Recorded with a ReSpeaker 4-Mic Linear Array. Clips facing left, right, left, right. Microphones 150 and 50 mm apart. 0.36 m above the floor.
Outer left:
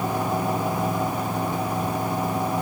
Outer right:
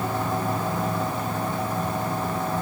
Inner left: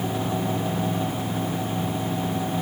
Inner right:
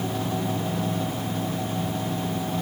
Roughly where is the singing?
No singing in this recording.